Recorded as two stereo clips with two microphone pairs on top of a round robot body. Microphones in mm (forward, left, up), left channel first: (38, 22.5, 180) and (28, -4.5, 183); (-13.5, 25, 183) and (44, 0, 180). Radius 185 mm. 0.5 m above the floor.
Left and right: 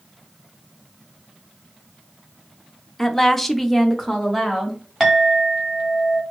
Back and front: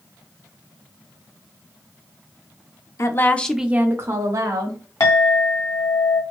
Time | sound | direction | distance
3.0 | a woman speaking | 140° left | 0.8 m
5.0 | a clink | 160° left | 1.4 m